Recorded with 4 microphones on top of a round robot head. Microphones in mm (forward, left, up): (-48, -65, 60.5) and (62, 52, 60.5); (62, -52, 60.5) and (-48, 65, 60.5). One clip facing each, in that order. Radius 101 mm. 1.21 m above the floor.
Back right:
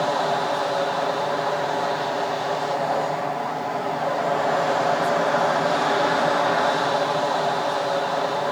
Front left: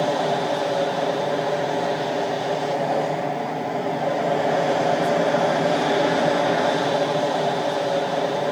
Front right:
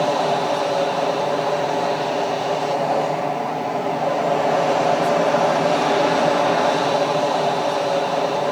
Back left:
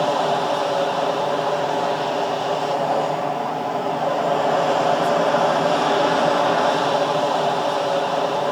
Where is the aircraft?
25° left.